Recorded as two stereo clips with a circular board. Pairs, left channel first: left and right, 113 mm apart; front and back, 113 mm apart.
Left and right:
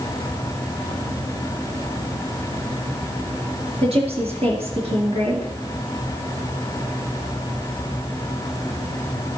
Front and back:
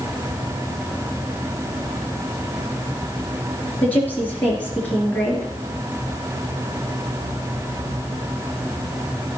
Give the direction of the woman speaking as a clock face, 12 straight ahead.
3 o'clock.